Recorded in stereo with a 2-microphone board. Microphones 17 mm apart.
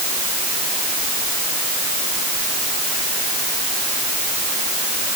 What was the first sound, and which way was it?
Only background noise.